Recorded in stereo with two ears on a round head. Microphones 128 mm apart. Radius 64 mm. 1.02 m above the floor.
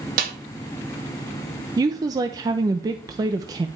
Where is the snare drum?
65° right (ahead or behind), 2.0 m.